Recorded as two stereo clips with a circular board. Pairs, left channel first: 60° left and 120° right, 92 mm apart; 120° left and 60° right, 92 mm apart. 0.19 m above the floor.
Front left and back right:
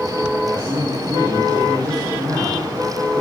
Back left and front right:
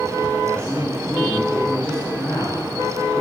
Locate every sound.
0.4 s a man speaking: 160° right, 4 m